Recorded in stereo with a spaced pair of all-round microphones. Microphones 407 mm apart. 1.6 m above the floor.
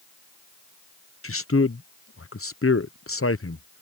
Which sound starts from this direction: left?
A man speaking, at 1.2 s.